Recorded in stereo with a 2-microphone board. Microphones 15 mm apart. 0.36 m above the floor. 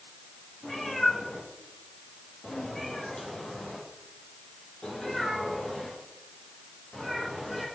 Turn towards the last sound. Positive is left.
turn(degrees=40)  # may be behind; listen again after turning